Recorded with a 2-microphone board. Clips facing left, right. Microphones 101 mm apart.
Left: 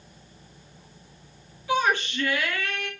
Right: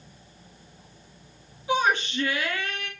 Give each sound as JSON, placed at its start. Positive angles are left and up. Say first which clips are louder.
{"t": 1.7, "sound": "a shout", "louder": "even", "side_deg": -25, "distance_m": 2.0}